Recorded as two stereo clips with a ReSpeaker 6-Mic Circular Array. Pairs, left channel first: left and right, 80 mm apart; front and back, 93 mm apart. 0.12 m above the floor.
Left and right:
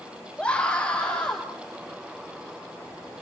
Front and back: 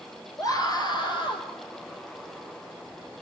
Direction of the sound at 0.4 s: 20° left.